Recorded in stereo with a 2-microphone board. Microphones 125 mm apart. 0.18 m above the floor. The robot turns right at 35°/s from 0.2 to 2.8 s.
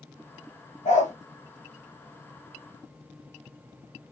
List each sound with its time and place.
0.8 s a dog barking: 75° left (ahead or behind), 3 m; by 1.1 s 85° left, 3 m